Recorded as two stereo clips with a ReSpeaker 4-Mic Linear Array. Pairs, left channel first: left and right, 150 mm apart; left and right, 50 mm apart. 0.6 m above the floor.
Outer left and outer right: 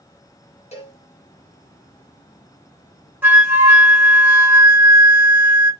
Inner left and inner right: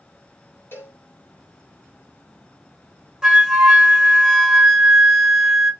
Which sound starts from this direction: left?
A cowbell, at 0.7 s.